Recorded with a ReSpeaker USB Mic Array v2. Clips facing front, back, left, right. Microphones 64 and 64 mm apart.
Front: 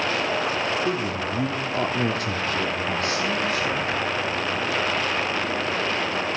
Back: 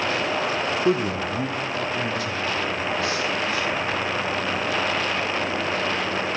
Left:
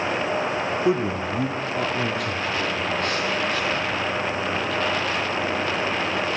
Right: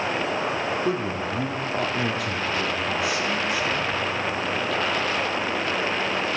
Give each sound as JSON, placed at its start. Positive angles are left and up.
{"t": 0.8, "sound": "a man speaking", "azimuth_deg": 145, "distance_m": 0.7}